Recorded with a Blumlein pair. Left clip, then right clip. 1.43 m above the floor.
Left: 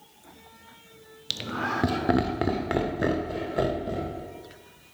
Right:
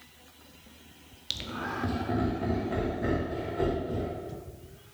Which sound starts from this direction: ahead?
Laughter, at 1.3 s.